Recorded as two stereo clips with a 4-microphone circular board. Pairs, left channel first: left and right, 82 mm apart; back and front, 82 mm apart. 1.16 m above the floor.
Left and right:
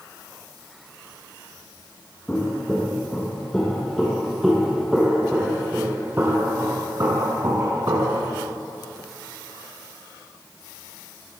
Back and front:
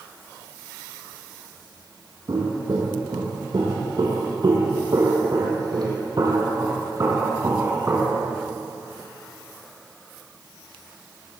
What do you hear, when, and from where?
2.3 s footsteps: 20° left, 3 m; by 8.3 s 60° right, 2.5 m